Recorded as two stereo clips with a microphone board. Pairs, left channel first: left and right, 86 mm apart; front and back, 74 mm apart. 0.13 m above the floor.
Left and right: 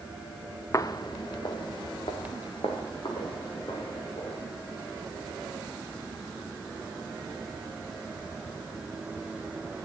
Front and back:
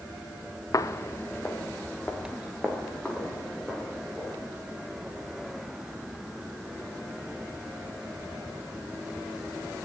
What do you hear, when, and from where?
0.7 s footsteps: 35° left, 0.6 m; by 4.4 s 80° left, 4.5 m